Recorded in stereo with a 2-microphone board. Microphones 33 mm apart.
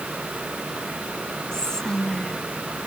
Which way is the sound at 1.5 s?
20° left (ahead or behind).